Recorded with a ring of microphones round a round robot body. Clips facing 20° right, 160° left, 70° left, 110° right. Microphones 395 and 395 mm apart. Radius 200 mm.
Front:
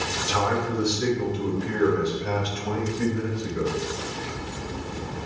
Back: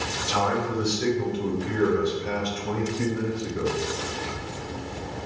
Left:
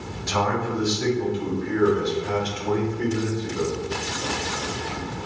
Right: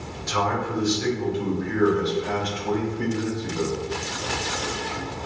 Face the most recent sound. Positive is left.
turn(degrees=5)